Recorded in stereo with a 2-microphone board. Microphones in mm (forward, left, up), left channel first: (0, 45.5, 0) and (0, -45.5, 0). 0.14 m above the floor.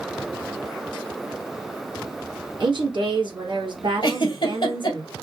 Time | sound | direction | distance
2.6 | a woman speaking | 55° right (ahead or behind) | 2.0 m
4.0 | a giggle | 55° left (ahead or behind) | 1.2 m